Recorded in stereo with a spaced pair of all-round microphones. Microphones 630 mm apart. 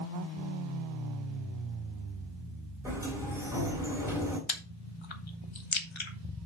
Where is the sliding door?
5° right (ahead or behind), 2.5 m.